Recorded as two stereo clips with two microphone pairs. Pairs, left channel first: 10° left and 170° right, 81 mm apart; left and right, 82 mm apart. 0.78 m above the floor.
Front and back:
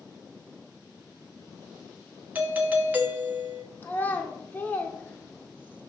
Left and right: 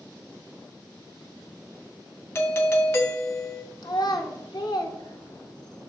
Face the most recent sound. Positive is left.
turn(degrees=75)